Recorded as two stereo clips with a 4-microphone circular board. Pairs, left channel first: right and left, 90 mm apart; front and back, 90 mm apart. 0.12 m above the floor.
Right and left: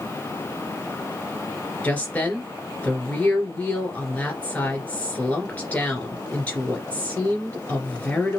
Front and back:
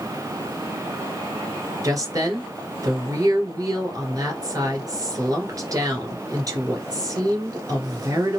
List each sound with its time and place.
1.8 s a woman speaking: 155° right, 2 m